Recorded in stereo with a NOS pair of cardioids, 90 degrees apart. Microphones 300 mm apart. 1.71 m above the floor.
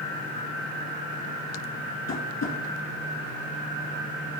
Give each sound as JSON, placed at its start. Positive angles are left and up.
{"t": 2.1, "sound": "tapping", "azimuth_deg": 60, "distance_m": 1.9}